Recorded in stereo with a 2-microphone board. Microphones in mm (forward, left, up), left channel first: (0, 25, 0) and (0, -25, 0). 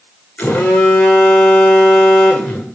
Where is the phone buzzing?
45° left (ahead or behind), 2.0 m.